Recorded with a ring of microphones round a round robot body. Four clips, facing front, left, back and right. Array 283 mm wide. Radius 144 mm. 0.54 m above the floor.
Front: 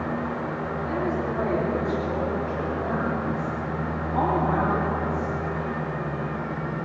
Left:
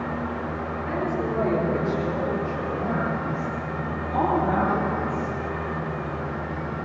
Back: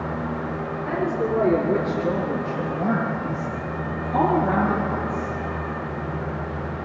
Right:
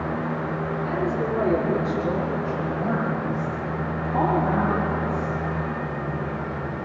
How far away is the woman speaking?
About 9.5 m.